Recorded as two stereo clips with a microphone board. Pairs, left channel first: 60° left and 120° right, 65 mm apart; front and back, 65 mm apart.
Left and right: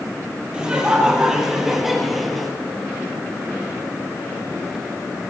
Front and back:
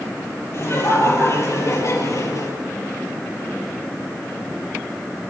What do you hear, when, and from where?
0.5 s laughter: 45° right, 4.5 m; by 2.5 s 25° right, 4 m